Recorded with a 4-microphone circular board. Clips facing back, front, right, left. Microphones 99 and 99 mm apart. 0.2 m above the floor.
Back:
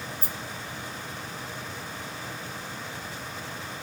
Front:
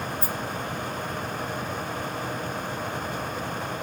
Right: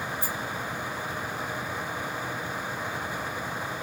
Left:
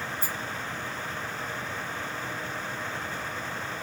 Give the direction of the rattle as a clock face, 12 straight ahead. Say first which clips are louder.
Front 7 dB, right 2 dB; 5 o'clock.